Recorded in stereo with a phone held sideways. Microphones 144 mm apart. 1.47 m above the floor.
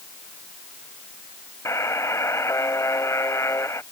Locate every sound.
1.6 s a buzzer: 20° left (ahead or behind)